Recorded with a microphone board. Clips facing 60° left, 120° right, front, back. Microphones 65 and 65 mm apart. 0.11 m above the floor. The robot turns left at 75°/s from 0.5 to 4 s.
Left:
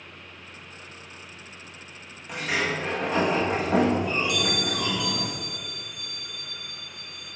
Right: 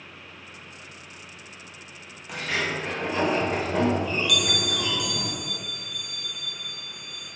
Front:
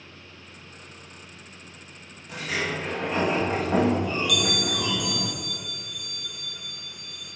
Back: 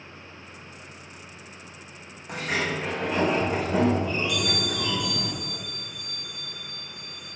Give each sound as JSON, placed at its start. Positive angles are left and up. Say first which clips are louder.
{"t": 2.3, "sound": "a sliding door", "louder": "left 1 dB, back 1 dB", "azimuth_deg": 155, "distance_m": 5.0}
{"t": 4.3, "sound": "a bell", "louder": "even, front 2 dB", "azimuth_deg": 0, "distance_m": 2.5}